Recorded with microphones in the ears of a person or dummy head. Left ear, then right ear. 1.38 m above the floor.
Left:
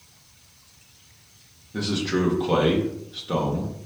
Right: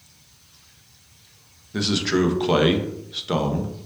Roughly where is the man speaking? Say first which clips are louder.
Right 4 dB; right.